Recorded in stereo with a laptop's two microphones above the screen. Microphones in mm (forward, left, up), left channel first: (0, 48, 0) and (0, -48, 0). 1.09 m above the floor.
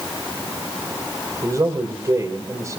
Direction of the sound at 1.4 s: 35° right (ahead or behind).